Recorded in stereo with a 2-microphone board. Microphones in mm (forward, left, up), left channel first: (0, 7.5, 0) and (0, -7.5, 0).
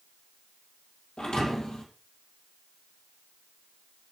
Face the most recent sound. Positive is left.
turn(degrees=70)  # may be behind; listen again after turning